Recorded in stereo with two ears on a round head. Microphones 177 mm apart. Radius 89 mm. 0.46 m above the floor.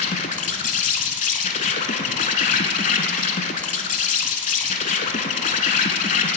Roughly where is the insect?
Left.